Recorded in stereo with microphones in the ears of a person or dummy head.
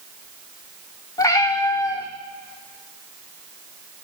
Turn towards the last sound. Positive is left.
turn(degrees=20)  # may be behind; listen again after turning